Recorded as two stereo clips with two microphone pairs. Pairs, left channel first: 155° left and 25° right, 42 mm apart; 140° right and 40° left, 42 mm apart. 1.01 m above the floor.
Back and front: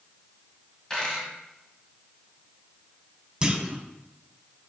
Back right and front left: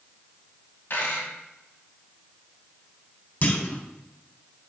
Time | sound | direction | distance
0.9 | a dropped coin | 125° right | 1.8 m
3.4 | a clunk | 90° right | 0.8 m